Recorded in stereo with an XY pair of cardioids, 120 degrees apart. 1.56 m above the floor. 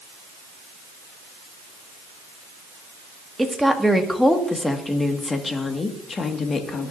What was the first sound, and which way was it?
A woman speaking, 5° right.